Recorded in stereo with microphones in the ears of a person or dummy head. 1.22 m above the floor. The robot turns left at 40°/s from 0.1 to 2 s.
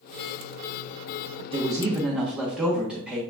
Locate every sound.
1.5 s a man speaking: 30° right (ahead or behind), 1.0 m; by 3.2 s 10° right (ahead or behind), 1.0 m